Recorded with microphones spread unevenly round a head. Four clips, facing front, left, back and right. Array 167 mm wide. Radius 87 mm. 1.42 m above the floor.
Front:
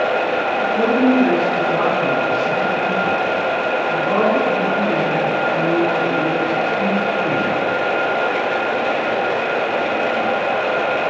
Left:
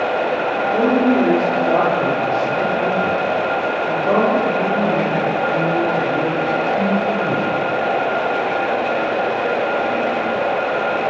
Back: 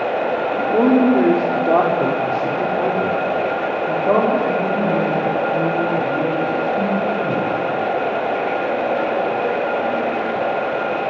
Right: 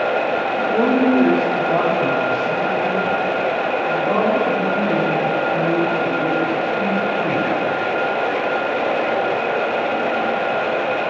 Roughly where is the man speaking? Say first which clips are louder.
Left 1 dB, back 3 dB; behind.